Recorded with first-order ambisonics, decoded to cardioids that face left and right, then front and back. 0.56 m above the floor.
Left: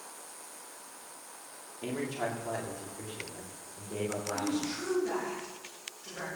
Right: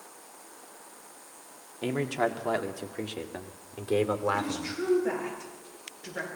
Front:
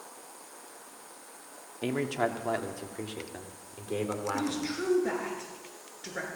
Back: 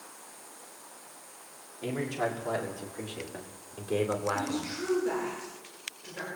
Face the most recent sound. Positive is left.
turn(degrees=-25)